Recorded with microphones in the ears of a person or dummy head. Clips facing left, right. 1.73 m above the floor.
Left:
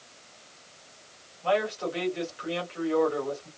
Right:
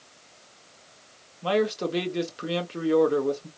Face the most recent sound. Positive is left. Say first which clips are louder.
# right 2 dB
turn(degrees=-50)  # may be behind; listen again after turning